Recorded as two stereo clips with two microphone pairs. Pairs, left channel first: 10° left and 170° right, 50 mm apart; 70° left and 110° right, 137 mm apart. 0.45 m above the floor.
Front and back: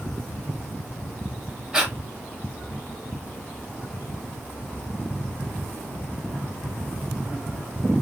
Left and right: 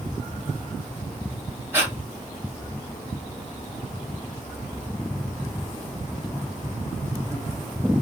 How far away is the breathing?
About 1.2 m.